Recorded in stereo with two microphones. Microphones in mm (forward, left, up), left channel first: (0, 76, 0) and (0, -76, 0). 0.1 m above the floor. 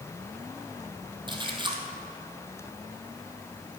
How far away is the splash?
About 1.6 m.